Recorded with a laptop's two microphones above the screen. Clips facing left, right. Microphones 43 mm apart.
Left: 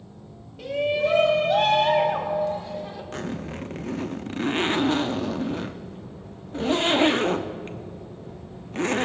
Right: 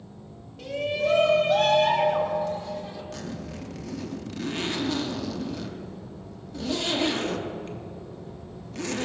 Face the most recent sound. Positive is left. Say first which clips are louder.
# left 4 dB
turn(degrees=40)  # may be behind; listen again after turning